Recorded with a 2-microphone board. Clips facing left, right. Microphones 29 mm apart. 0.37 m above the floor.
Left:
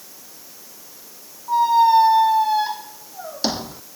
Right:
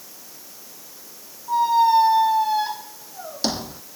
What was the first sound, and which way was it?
A squeak, 5° left (ahead or behind).